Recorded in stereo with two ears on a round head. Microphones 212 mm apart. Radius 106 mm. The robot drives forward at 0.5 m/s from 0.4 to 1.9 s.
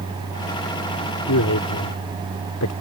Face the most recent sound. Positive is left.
turn(degrees=80)